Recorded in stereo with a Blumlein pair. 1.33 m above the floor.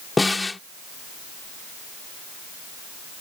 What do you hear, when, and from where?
0.2 s a snare drum: 10° left